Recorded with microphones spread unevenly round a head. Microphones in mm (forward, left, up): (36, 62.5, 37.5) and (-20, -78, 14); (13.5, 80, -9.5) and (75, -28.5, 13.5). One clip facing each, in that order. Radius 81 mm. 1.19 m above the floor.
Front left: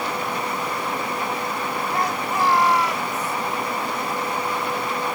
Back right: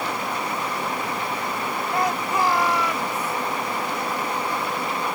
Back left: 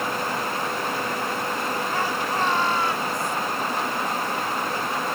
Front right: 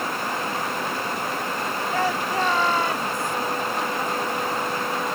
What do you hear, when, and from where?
1.9 s a shout: 100° right; by 3.4 s 95° right